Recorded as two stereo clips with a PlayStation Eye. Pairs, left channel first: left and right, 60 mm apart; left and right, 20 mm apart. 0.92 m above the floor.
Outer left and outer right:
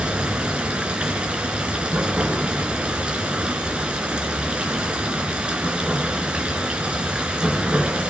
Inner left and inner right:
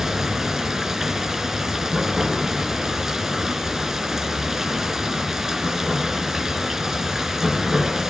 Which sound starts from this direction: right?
Running water, at 0.0 s.